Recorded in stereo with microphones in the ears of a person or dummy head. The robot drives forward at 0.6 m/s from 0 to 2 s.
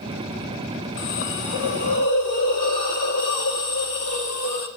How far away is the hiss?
About 0.6 m.